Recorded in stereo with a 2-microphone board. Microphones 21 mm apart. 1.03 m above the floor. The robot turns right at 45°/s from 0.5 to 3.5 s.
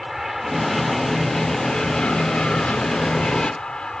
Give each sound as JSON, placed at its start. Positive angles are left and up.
{"t": 0.0, "sound": "an aircraft", "side_deg": -10}